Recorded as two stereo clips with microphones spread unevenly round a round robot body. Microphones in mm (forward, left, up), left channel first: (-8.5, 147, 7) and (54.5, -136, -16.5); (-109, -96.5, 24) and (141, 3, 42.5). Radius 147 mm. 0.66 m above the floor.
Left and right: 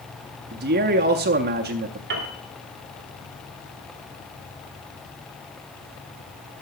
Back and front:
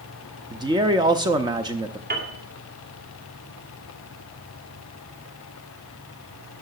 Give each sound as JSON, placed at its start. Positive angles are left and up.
{"t": 0.5, "sound": "a man speaking", "azimuth_deg": -50, "distance_m": 0.6}
{"t": 2.1, "sound": "a piano", "azimuth_deg": -30, "distance_m": 2.5}